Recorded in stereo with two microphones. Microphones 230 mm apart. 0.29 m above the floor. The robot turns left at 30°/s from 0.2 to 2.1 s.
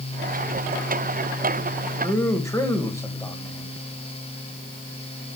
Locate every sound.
2.0 s a man speaking: 15° left (ahead or behind), 1.4 m